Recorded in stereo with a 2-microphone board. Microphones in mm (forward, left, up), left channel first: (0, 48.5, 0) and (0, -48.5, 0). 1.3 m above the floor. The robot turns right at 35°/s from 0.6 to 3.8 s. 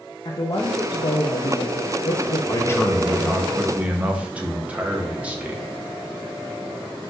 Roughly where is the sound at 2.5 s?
Behind left.